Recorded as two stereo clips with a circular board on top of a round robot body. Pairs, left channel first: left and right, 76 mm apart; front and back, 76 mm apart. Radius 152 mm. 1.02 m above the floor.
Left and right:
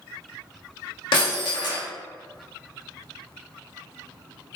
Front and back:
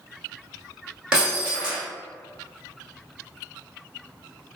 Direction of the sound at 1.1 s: 100° left.